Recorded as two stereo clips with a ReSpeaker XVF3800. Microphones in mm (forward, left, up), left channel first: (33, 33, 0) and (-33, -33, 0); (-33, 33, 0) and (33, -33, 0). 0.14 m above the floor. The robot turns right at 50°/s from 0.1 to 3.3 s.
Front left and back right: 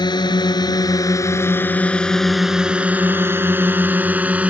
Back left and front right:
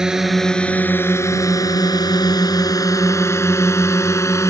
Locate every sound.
0.0 s a drone: 35° left; by 4.5 s 160° left